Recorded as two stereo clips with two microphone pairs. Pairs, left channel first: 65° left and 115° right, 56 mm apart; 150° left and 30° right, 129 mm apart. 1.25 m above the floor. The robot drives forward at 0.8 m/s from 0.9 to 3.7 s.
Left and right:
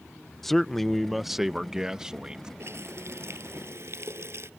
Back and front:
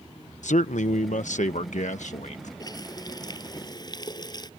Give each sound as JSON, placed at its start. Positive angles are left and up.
{"t": 0.4, "sound": "a man speaking", "azimuth_deg": 150}
{"t": 2.6, "sound": "a running tap", "azimuth_deg": -150}